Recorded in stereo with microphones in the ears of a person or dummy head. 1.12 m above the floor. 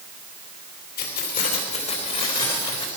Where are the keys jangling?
50° left (ahead or behind), 2.5 m; by 2.9 s 30° left (ahead or behind), 3.5 m.